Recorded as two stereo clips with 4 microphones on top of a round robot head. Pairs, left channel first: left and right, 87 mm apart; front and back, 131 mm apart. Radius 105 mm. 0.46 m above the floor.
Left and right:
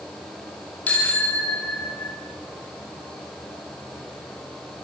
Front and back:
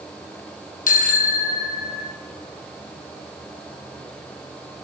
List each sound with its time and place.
0.9 s a bicycle bell: 10° left, 4.5 m; by 2.1 s 15° left, 6 m